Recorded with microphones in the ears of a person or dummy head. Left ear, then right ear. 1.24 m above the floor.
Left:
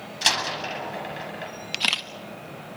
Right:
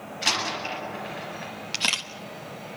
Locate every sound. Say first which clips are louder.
0.2 s a door slam: left 2 dB; 80° left, 8 m
1.7 s a camera shutter: left 1 dB; 10° left (ahead or behind), 1.4 m